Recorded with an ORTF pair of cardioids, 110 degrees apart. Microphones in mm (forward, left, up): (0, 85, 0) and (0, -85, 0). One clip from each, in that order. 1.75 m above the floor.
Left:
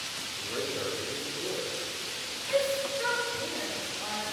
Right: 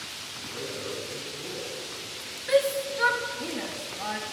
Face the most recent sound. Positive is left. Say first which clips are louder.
# right 5 dB
turn(degrees=-55)